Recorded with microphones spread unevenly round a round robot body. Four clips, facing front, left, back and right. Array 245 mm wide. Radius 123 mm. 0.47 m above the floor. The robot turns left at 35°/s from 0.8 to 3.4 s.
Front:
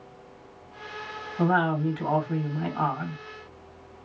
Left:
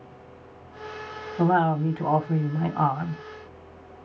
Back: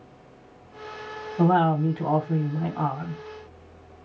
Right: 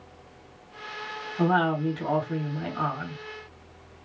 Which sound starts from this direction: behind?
A woman speaking, at 1.4 s.